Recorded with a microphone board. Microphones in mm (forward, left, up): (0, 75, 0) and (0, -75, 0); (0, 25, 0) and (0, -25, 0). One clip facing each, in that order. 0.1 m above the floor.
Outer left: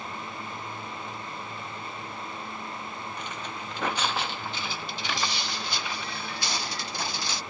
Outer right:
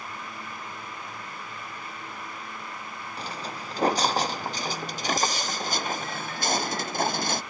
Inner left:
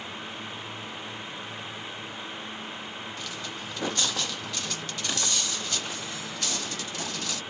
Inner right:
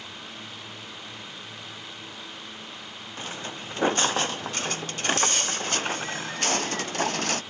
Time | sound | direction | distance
3.2 | footsteps | 35° right (ahead or behind) | ?